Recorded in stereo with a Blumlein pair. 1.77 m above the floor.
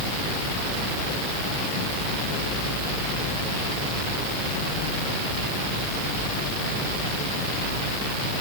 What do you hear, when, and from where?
Only background noise.